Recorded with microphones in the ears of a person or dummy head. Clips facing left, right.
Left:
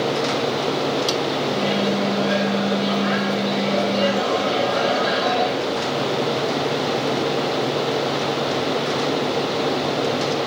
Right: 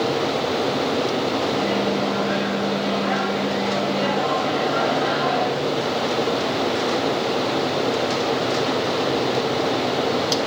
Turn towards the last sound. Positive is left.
turn(degrees=45)  # may be behind; listen again after turning